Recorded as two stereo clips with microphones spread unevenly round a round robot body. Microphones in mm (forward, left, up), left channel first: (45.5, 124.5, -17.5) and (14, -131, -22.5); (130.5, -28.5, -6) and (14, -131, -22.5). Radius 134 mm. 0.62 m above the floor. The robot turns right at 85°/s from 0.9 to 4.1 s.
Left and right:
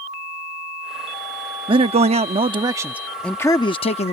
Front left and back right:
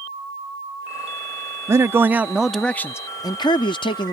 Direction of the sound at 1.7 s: 135° right.